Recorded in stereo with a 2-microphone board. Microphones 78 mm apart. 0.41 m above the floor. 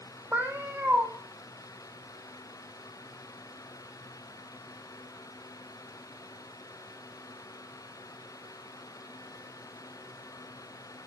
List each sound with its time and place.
0.3 s a cat meowing: 20° right (ahead or behind), 1.4 m